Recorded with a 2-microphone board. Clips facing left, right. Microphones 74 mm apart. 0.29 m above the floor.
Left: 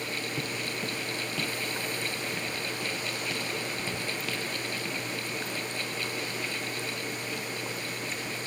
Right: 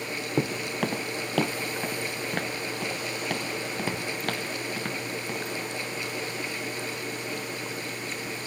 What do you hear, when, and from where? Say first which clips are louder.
0.4 s footsteps: right 6 dB; 70° right (ahead or behind), 0.7 m; by 5.5 s 55° right (ahead or behind), 3.5 m